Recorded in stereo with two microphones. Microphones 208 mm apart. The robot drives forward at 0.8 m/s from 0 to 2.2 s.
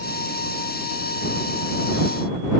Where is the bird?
No bird in this recording.